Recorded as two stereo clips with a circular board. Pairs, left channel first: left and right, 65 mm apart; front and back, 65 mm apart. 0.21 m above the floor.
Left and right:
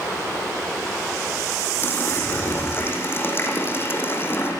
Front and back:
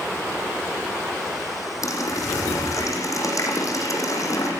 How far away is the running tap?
About 6.5 m.